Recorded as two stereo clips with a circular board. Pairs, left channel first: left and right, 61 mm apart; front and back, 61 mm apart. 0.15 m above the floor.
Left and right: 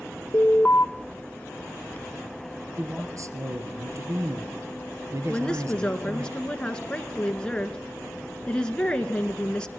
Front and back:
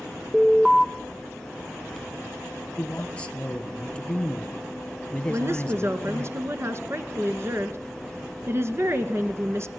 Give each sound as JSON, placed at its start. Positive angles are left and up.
{"t": 0.3, "sound": "an alarm", "azimuth_deg": 95, "distance_m": 0.9}
{"t": 2.8, "sound": "a man speaking", "azimuth_deg": -70, "distance_m": 2.5}
{"t": 5.3, "sound": "a woman speaking", "azimuth_deg": 160, "distance_m": 2.0}